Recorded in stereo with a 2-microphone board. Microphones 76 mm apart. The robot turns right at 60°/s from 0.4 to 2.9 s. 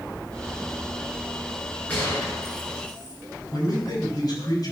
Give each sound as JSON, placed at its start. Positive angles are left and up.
{"t": 1.9, "sound": "a gunshot", "side_deg": 20, "distance_m": 8.0}
{"t": 3.5, "sound": "a man speaking", "side_deg": 55, "distance_m": 5.5}